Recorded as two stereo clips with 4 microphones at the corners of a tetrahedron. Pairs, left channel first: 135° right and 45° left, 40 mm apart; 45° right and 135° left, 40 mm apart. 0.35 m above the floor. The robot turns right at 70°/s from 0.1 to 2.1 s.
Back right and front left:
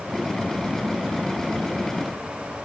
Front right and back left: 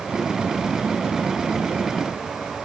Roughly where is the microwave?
I don't hear a microwave.